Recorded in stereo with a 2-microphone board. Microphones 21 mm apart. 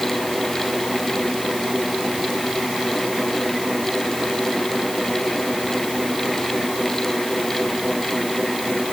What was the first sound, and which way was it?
Only background noise.